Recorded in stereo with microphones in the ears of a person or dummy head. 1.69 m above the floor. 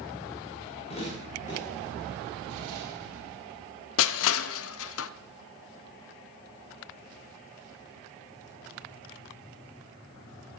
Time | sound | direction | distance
0.9 | footsteps | 40° left (ahead or behind) | 7.5 m
2.5 | an explosion | 65° right (ahead or behind) | 4 m
4.0 | crushing | 80° left | 0.5 m